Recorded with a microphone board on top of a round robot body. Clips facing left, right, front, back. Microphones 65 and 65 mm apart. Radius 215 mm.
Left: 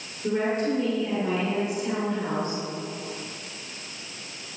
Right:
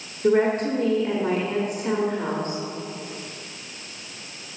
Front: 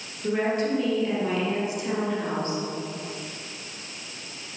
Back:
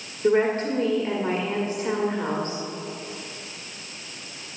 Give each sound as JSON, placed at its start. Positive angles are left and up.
{"t": 0.2, "sound": "a woman speaking", "azimuth_deg": -125, "distance_m": 1.7}